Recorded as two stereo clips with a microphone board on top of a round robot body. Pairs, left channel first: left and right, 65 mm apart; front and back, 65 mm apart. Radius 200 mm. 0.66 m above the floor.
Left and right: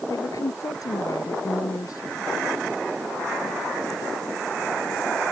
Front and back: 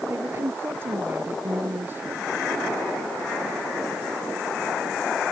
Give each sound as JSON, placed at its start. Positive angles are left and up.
{"t": 0.1, "sound": "a woman speaking", "azimuth_deg": 125}